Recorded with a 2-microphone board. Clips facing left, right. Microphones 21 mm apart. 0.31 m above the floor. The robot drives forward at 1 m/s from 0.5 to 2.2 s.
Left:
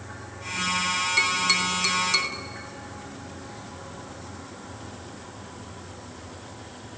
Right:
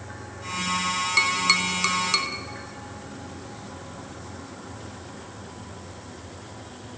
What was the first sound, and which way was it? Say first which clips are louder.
Tapping: right 2 dB; 20° right (ahead or behind).